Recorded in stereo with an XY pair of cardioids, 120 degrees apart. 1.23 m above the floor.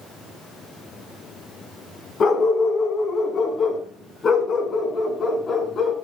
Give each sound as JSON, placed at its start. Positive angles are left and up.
{"t": 2.2, "sound": "a dog barking", "azimuth_deg": 40, "distance_m": 4.5}